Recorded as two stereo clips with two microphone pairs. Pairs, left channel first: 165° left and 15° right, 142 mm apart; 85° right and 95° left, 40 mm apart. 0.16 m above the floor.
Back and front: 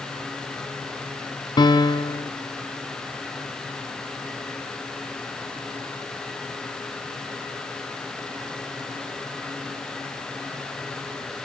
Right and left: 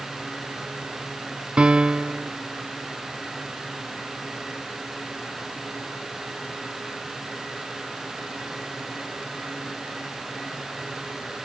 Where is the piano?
135° left, 0.9 m.